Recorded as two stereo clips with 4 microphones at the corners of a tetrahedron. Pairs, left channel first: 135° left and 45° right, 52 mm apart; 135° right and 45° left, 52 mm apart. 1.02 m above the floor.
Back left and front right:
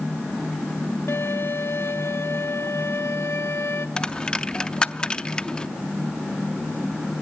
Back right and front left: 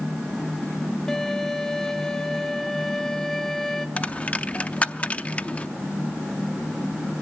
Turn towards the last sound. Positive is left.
turn(degrees=-165)